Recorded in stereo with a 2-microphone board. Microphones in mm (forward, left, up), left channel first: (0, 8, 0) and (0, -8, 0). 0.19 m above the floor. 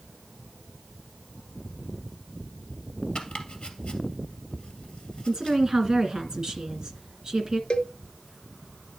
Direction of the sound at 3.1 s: 70° left (ahead or behind).